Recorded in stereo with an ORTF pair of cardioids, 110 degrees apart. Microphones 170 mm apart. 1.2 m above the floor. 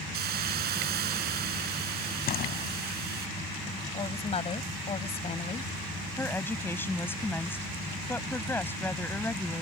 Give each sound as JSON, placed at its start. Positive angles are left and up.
{"t": 0.1, "sound": "a hiss", "azimuth_deg": -65}
{"t": 2.3, "sound": "a door slam", "azimuth_deg": 60}
{"t": 3.9, "sound": "a woman speaking", "azimuth_deg": 35}
{"t": 6.2, "sound": "a woman speaking", "azimuth_deg": 10}